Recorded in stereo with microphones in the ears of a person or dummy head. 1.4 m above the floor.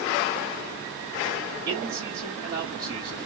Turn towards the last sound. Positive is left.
turn(degrees=-25)  # may be behind; listen again after turning